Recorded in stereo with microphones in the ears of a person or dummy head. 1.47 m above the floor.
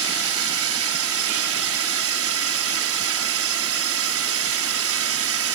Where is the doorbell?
I don't hear a doorbell.